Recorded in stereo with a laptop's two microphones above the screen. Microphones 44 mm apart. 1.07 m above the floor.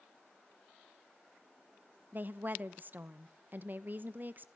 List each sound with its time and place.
2.1 s a woman speaking: 45° right (ahead or behind), 1.0 m